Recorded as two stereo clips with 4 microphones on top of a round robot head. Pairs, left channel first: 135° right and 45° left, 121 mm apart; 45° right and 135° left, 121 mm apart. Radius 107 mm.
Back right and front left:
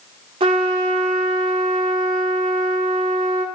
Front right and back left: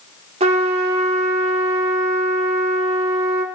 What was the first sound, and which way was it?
A trumpet, 95° left.